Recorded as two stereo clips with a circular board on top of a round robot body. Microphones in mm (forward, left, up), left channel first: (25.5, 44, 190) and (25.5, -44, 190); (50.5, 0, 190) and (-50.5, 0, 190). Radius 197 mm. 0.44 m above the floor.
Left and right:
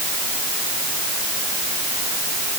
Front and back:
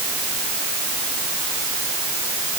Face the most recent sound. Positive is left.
No sound to turn to.